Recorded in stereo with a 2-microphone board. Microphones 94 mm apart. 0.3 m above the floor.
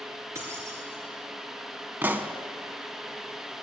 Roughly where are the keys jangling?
Right.